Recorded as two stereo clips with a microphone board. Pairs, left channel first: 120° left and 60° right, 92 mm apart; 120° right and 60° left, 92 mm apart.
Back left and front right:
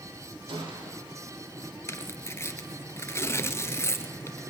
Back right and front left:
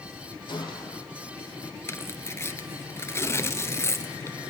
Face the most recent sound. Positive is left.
turn(degrees=180)